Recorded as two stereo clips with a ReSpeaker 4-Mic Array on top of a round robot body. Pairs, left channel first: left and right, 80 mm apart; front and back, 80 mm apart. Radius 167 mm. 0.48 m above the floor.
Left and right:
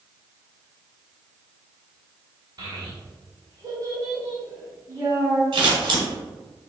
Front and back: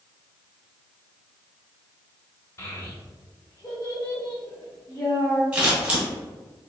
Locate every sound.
2.6 s a child speaking: 55° right, 1.6 m; by 5.4 s 45° right, 3 m
5.5 s scissors: 105° right, 1.3 m